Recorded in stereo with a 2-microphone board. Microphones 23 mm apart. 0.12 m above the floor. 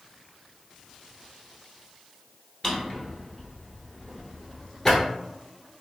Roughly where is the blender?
I don't hear a blender.